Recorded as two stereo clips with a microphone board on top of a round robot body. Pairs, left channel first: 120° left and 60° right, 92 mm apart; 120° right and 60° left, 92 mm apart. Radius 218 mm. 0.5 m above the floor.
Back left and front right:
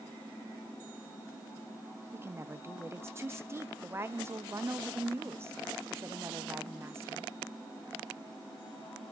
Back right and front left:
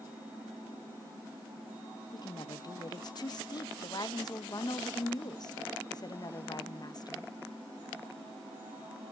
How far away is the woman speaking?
About 1.0 m.